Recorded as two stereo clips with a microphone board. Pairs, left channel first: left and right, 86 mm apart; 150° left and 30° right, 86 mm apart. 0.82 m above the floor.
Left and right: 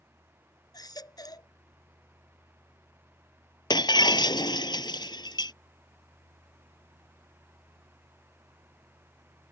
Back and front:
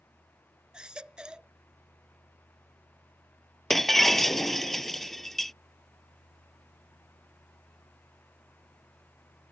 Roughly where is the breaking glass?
Ahead left.